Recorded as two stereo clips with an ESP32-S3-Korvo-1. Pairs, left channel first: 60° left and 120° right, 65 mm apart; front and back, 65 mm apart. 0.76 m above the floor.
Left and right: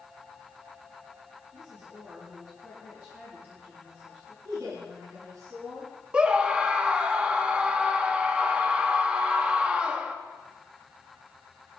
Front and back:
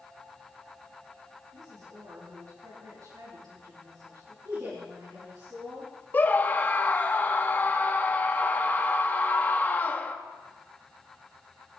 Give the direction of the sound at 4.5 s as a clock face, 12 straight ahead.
5 o'clock.